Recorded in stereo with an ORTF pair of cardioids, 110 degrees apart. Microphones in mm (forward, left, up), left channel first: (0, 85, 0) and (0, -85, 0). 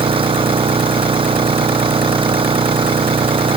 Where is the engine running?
30° right.